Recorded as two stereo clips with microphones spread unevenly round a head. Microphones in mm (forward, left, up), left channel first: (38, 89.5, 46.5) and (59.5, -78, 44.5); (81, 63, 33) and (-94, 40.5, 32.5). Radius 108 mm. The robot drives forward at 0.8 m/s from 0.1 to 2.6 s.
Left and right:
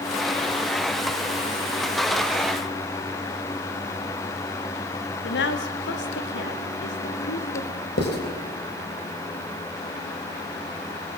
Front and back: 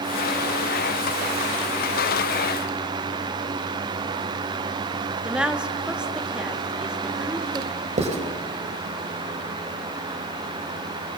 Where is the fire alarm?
No fire alarm in this recording.